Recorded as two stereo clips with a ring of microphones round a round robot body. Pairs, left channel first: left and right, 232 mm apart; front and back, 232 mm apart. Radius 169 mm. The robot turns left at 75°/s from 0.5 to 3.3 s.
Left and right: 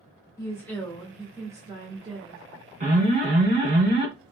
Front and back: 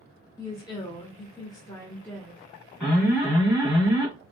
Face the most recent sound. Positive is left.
turn(degrees=-120)